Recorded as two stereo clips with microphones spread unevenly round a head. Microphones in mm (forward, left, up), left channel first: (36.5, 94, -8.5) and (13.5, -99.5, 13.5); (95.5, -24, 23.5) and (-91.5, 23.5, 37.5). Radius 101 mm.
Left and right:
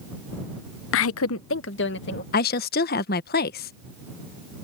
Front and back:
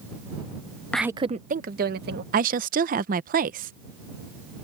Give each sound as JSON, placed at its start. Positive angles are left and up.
{"t": 0.9, "sound": "a woman speaking", "azimuth_deg": 70}
{"t": 2.3, "sound": "a woman speaking", "azimuth_deg": 125}